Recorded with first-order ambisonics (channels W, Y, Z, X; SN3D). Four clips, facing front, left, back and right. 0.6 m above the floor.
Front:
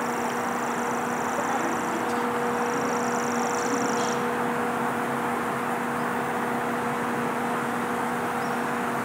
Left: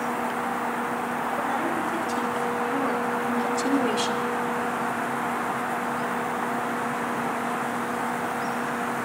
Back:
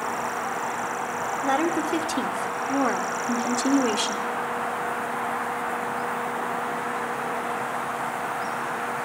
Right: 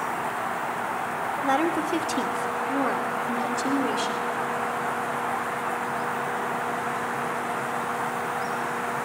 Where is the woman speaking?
135° right, 2.5 m; by 4.3 s 155° left, 2 m.